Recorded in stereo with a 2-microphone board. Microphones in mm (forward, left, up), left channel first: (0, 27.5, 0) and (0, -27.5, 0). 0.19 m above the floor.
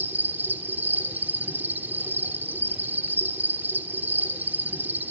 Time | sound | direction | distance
0.0 | an insect | 30° right (ahead or behind) | 1.6 m